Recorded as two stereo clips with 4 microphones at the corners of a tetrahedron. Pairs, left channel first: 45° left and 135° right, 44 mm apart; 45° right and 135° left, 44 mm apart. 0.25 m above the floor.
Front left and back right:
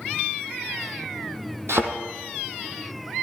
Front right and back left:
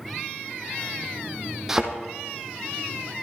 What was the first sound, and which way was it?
A thud, 145° right.